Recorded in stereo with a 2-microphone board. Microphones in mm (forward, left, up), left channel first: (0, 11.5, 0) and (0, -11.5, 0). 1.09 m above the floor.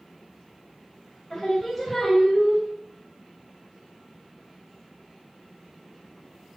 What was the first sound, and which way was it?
Singing, 10° left (ahead or behind).